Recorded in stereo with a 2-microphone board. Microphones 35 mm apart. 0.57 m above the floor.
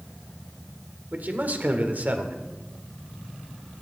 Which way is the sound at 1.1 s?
55° right (ahead or behind).